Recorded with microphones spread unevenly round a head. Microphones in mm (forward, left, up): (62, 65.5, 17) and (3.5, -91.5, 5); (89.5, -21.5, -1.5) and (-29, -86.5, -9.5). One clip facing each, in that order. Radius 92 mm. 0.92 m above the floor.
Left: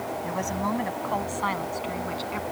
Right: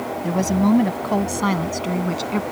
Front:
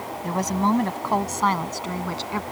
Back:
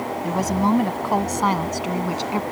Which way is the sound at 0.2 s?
70° right.